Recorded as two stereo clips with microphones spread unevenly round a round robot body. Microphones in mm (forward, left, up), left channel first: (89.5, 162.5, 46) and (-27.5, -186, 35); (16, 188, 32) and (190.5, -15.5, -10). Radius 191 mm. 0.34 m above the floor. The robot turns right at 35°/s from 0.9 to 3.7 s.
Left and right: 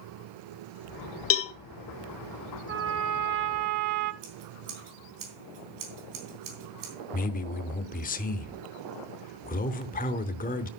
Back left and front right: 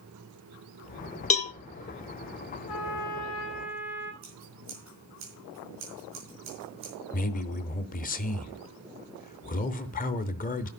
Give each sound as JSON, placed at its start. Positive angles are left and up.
{"t": 1.3, "sound": "a cowbell", "azimuth_deg": 70, "distance_m": 0.9}
{"t": 2.7, "sound": "a trumpet", "azimuth_deg": -170, "distance_m": 0.7}
{"t": 4.2, "sound": "scissors", "azimuth_deg": -95, "distance_m": 3.5}
{"t": 7.1, "sound": "a man speaking", "azimuth_deg": 105, "distance_m": 0.9}